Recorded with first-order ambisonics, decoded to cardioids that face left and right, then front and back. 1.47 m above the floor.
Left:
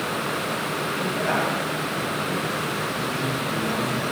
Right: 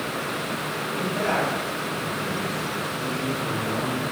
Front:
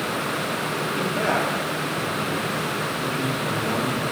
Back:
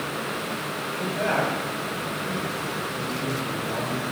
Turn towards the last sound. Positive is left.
turn(degrees=0)